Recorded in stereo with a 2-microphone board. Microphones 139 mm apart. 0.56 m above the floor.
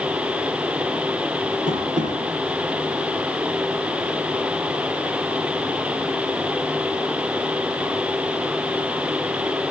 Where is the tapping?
80° right, 5.5 m.